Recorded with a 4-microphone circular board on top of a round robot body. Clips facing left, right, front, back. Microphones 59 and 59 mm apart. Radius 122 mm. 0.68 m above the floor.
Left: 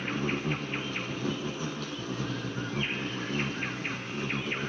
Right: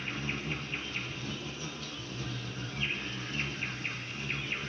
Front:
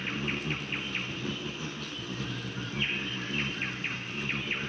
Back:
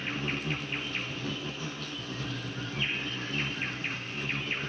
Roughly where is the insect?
Left.